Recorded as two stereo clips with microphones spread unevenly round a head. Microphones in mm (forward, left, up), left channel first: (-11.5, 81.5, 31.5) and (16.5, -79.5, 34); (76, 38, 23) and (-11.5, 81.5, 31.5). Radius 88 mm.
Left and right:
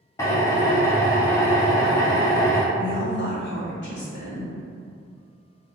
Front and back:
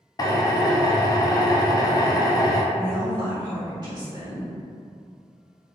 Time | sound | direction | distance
0.2 | a drill | 25° left | 0.5 m
2.7 | a woman speaking | 110° left | 1.6 m